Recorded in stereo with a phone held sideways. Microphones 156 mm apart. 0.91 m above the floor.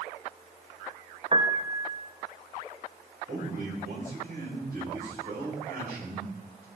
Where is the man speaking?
65° right (ahead or behind), 5 m.